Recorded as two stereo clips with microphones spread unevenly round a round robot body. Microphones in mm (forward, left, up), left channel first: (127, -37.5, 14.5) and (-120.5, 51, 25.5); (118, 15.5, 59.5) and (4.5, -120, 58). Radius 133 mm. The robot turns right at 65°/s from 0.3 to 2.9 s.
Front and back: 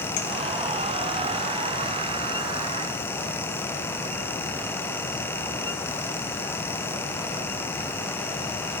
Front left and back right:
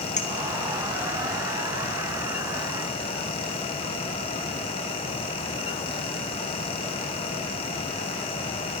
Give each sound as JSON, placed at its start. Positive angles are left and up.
{"t": 0.2, "sound": "a clink", "azimuth_deg": 5, "distance_m": 4.0}